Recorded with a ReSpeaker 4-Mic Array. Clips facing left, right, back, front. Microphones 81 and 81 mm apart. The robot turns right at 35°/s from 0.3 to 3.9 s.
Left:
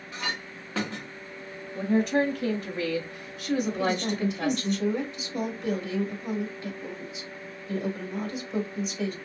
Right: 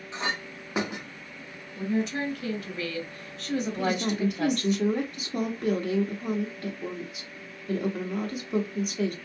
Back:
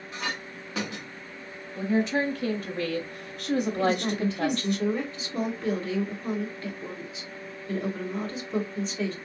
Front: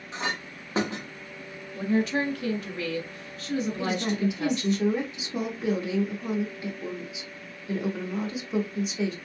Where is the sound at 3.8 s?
75° right, 1.1 m.